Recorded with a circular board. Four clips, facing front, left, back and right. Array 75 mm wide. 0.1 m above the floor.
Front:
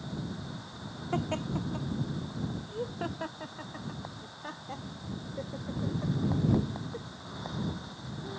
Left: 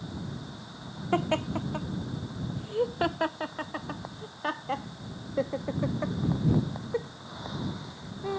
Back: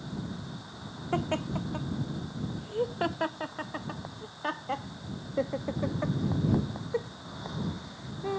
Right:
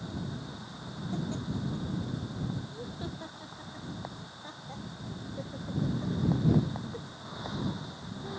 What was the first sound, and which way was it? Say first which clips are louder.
Laughter: left 9 dB, back 2 dB; 105° left.